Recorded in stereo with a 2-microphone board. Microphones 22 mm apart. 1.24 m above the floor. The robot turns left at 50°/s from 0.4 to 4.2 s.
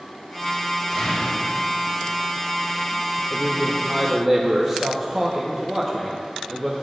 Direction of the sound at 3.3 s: 35° left.